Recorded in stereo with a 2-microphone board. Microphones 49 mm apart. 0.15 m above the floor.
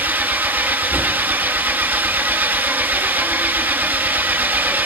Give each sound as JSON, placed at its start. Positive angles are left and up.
{"t": 0.0, "sound": "an engine running", "side_deg": -40, "distance_m": 0.7}